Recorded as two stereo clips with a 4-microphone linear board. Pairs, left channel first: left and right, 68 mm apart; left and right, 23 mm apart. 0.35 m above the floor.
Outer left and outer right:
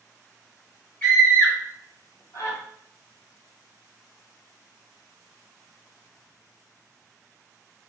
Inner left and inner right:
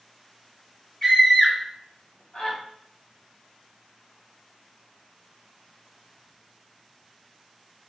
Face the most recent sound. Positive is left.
turn(degrees=55)  # may be behind; listen again after turning